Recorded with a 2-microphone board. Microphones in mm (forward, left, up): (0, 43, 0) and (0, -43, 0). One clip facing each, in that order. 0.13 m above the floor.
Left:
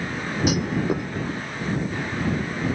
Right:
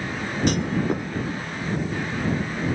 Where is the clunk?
5° left (ahead or behind).